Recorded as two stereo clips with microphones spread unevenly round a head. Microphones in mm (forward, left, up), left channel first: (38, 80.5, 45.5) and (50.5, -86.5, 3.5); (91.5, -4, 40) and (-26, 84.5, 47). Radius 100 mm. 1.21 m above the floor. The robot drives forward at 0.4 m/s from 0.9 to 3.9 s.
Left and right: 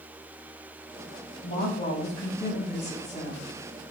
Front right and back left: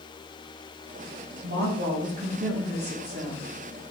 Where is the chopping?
No chopping in this recording.